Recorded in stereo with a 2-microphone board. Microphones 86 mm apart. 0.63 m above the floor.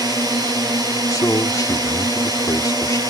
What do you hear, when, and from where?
0.0 s a drone: 50° right (ahead or behind)
1.1 s a man speaking: 45° left (ahead or behind)